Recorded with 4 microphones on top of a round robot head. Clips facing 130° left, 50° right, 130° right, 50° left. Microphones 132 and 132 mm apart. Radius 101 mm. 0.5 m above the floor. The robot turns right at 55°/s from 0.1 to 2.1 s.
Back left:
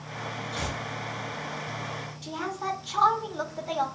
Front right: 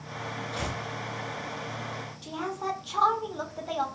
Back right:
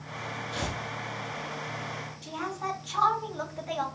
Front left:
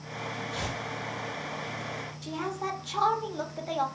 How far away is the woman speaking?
About 1.0 m.